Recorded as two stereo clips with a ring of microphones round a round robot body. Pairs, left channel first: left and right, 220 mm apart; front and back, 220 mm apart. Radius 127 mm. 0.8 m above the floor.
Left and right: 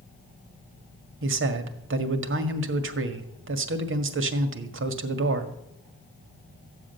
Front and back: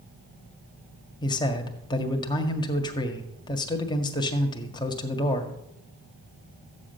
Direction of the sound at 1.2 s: 70° right.